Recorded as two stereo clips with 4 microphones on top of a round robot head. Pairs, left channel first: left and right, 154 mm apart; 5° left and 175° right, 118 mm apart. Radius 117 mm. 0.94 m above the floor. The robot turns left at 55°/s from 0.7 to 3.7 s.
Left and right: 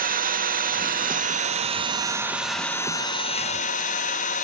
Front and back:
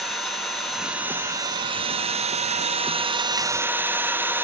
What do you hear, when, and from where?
0.0 s an engine running: 80° right, 0.8 m; by 4.4 s 115° left, 0.8 m